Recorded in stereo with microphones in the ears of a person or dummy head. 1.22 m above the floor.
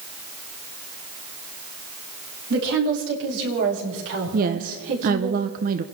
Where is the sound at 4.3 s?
45° right (ahead or behind), 0.8 m.